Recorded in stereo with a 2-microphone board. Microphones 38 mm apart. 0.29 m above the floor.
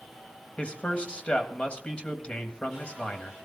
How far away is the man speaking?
About 1.6 m.